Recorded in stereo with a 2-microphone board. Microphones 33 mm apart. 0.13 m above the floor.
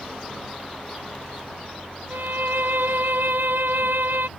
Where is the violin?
80° right.